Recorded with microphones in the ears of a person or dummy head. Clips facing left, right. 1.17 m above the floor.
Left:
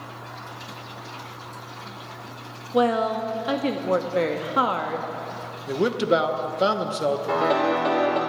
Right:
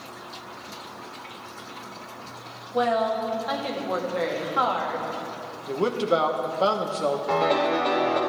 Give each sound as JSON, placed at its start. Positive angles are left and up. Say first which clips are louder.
{"t": 2.7, "sound": "a woman speaking", "louder": "left 2 dB", "side_deg": 45, "distance_m": 1.8}
{"t": 5.7, "sound": "a man speaking", "louder": "left 2 dB", "side_deg": 25, "distance_m": 1.1}
{"t": 7.3, "sound": "a piano", "louder": "even", "side_deg": 5, "distance_m": 2.0}